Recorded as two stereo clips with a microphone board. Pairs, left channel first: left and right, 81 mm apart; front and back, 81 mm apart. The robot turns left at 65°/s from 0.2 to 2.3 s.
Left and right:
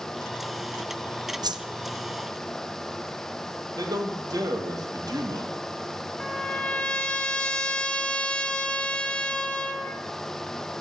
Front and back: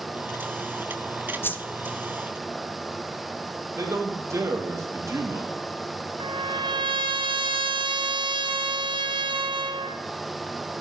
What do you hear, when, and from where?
1.4 s a whoosh: 60° right, 0.6 m; by 1.6 s 75° right, 0.6 m
3.8 s a man speaking: 125° right, 2 m
6.2 s a trumpet: 165° left, 0.8 m